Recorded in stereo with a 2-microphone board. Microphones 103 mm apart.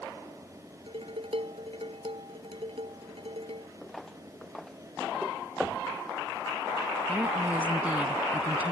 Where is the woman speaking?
15° right (ahead or behind).